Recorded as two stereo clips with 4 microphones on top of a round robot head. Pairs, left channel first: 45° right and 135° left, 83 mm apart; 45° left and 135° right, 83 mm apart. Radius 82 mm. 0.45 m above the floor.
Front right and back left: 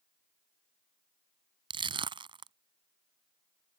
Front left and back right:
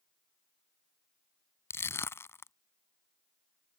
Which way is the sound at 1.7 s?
105° left.